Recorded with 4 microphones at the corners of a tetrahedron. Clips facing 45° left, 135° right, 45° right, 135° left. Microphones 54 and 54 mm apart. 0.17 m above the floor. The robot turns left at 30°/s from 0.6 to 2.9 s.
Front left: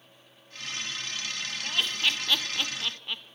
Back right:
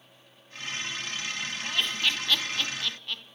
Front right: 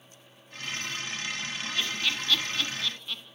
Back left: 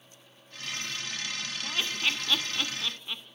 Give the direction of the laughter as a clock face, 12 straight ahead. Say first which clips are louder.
Even, back left 1 dB; 8 o'clock.